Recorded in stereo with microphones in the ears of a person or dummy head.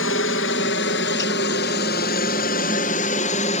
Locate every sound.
0.0 s a helicopter: 65° left (ahead or behind); by 3.6 s 35° left (ahead or behind)